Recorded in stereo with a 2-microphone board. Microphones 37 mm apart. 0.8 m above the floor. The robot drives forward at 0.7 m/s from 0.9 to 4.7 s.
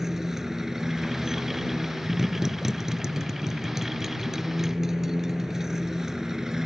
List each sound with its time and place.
0.0 s a motorcycle: 10° right (ahead or behind); by 6.7 s 15° right (ahead or behind)